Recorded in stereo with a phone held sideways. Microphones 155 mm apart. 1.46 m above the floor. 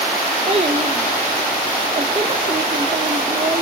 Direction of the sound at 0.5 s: 45° right (ahead or behind).